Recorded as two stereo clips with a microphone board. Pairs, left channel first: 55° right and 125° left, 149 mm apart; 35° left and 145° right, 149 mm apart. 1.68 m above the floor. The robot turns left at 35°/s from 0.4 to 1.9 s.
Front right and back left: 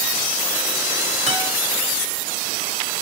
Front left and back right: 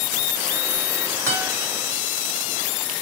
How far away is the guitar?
About 1.9 m.